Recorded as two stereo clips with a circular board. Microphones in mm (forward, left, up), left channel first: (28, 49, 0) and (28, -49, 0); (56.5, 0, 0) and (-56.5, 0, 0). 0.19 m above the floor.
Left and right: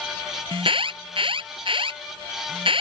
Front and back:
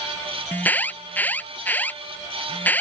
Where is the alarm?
75° right.